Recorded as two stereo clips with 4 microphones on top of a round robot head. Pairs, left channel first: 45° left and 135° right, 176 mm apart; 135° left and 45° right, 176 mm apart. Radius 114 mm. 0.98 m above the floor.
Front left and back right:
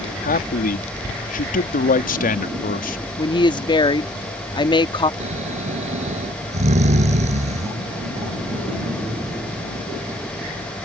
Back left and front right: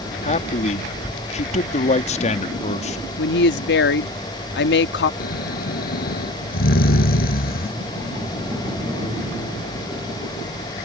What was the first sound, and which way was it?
A man speaking, 85° left.